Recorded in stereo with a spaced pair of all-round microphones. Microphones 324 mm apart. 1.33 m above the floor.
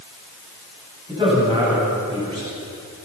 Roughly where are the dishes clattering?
I don't hear dishes clattering.